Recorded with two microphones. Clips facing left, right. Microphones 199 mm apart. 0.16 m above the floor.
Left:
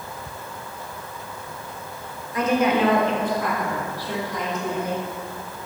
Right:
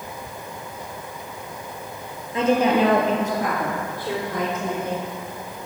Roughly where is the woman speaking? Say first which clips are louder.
Right 2 dB; right.